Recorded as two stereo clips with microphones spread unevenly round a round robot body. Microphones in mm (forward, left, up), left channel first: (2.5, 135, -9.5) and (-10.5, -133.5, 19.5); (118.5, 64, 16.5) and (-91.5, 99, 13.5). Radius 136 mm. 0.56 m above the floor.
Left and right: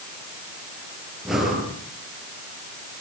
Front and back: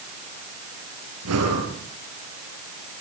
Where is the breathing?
Straight behind, 5.5 m.